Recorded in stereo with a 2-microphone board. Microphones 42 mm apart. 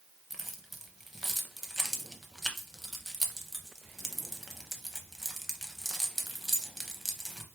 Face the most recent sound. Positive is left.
turn(degrees=-5)  # may be behind; listen again after turning